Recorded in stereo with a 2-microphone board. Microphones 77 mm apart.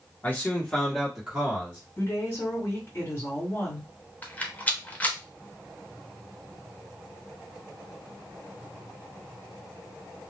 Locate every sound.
0.2 s a man speaking: 25° left (ahead or behind), 1.3 m; by 1.8 s 25° right (ahead or behind), 1.3 m
2.0 s a woman speaking: 30° left (ahead or behind), 2 m
4.2 s a rattle: 20° left (ahead or behind), 0.7 m